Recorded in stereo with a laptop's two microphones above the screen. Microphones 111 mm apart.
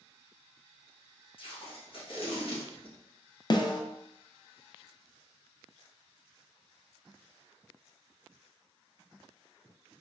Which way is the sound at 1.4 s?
50° left (ahead or behind).